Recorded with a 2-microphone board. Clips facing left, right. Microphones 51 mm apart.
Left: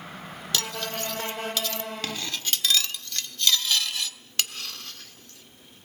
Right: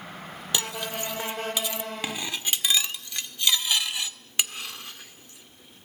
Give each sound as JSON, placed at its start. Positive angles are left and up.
{"t": 0.5, "sound": "cutlery clinking", "side_deg": -20, "distance_m": 1.2}